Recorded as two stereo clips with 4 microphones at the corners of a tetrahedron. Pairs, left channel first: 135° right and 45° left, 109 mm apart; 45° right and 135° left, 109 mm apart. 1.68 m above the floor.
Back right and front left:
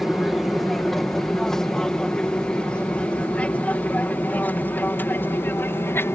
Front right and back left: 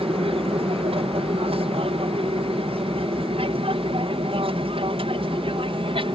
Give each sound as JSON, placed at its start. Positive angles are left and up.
{"t": 0.0, "sound": "an aircraft", "azimuth_deg": 135}